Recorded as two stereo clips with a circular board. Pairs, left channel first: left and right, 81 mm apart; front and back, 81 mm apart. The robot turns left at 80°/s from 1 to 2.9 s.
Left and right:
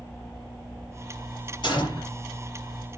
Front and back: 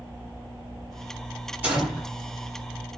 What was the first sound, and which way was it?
A gunshot, 110° left.